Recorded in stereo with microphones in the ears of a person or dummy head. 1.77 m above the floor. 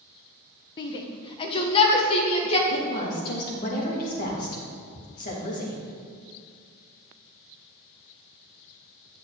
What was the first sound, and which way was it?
A shout, 25° left (ahead or behind).